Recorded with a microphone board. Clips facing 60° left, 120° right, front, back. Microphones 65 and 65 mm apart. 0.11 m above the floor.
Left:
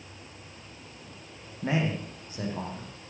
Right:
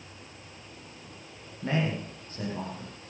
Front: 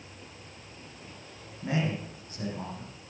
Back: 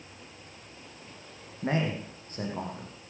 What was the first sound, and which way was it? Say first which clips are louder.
A man speaking: left 1 dB, back 1 dB; 135° left.